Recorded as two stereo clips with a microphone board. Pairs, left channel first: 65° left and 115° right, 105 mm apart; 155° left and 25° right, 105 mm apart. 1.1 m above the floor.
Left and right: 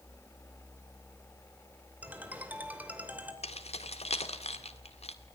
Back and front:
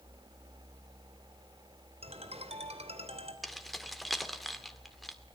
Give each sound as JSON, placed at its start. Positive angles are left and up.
{"t": 2.0, "sound": "a ringtone", "azimuth_deg": -35, "distance_m": 2.5}
{"t": 3.4, "sound": "keys jangling", "azimuth_deg": 70, "distance_m": 1.9}